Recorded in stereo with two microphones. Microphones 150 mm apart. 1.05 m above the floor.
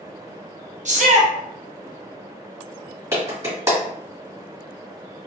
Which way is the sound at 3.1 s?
20° right (ahead or behind).